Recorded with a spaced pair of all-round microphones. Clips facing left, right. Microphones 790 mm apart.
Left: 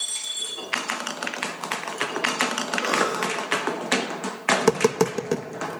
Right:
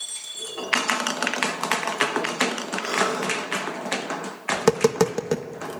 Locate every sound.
2.8 s a cough: 65° left (ahead or behind), 2.5 m
4.5 s tapping: 20° right (ahead or behind), 1.3 m